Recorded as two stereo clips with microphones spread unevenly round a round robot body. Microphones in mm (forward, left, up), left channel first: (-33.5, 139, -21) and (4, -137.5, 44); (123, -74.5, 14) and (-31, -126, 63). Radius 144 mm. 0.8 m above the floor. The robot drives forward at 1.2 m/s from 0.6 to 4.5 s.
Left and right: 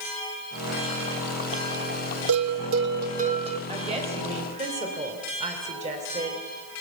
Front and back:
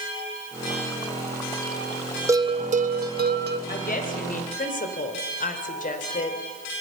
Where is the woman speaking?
10° right, 4.5 m.